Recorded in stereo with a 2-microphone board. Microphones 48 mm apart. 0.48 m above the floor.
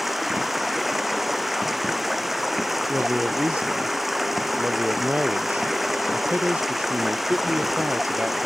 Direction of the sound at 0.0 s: 5° right (ahead or behind).